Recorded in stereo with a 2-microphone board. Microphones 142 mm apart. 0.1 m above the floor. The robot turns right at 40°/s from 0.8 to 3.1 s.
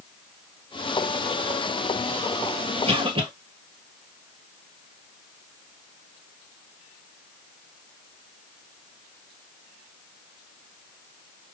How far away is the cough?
About 1.7 m.